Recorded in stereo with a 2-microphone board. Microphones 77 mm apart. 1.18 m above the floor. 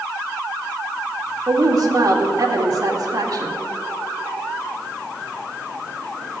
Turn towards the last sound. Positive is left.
turn(degrees=-50)  # may be behind; listen again after turning